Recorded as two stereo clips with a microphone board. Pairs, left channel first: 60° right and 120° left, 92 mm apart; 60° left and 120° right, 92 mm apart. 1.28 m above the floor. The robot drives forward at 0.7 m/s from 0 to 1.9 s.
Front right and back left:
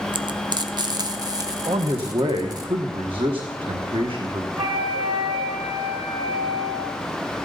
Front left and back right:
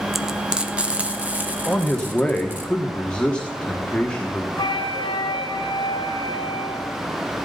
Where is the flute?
95° left, 3 m.